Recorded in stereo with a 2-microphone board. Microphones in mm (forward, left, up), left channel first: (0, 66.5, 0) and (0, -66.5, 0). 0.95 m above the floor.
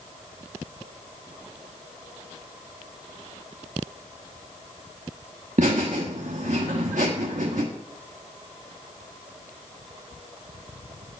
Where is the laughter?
65° right (ahead or behind), 1.2 m.